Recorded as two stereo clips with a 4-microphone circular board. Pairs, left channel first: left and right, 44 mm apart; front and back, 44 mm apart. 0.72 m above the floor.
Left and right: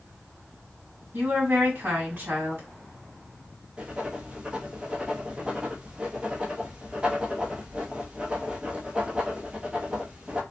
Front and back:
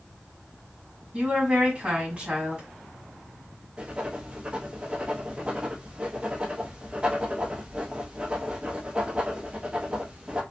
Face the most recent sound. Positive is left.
turn(degrees=-140)